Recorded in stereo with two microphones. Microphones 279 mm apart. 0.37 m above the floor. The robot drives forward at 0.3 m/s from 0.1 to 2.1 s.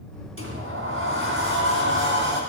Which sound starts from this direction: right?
A sliding door, at 0.4 s.